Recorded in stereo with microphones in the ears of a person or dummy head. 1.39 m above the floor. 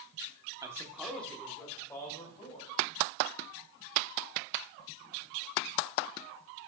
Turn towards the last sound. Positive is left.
turn(degrees=25)  # may be behind; listen again after turning